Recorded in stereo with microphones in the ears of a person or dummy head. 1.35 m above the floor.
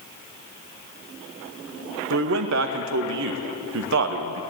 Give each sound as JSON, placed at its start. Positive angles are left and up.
{"t": 2.1, "sound": "a man speaking", "side_deg": -70, "distance_m": 1.8}